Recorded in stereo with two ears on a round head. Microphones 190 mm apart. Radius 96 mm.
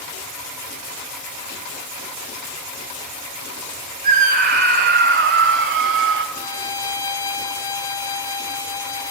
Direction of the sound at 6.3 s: 15° left (ahead or behind).